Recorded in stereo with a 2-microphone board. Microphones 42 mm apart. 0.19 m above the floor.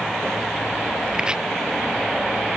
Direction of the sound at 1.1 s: 20° right (ahead or behind).